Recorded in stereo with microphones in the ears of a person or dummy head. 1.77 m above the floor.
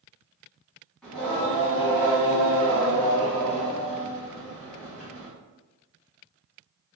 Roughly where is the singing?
Centre.